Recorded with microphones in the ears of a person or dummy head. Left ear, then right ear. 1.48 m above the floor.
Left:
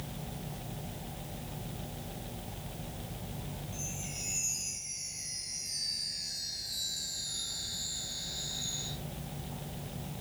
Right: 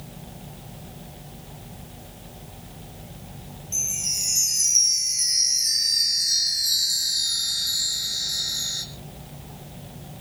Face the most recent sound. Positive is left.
turn(degrees=-75)  # may be behind; listen again after turning